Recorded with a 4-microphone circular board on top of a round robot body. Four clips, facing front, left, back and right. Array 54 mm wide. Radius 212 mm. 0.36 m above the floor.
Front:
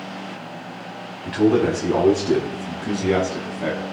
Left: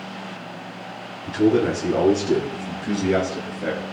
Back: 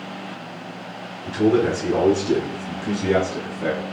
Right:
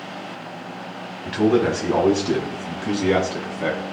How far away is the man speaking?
About 5 m.